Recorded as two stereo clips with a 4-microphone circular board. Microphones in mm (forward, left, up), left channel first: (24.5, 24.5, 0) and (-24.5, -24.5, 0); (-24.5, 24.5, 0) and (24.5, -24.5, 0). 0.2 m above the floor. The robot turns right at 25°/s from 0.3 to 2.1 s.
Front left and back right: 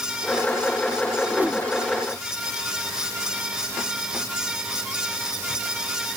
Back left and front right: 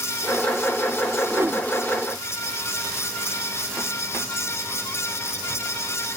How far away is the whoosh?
About 0.9 m.